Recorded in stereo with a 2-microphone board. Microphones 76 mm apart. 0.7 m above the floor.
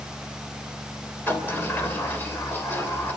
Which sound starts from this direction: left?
A sliding door, at 1.3 s.